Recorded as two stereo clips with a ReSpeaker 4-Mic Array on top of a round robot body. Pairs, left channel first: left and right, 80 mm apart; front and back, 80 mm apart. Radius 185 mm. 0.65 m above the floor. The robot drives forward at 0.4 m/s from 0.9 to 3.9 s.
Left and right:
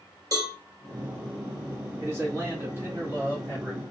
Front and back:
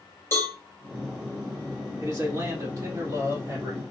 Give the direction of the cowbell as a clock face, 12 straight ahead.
2 o'clock.